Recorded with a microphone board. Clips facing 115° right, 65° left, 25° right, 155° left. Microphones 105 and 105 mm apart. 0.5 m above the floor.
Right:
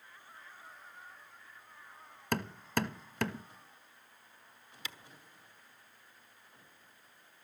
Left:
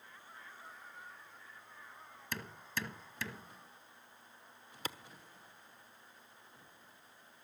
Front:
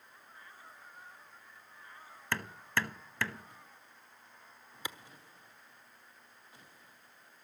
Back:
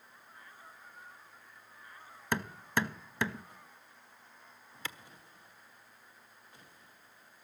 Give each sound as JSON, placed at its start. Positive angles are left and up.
{"t": 2.3, "sound": "hammering", "azimuth_deg": -130, "distance_m": 0.9}
{"t": 4.8, "sound": "a clap", "azimuth_deg": 45, "distance_m": 1.2}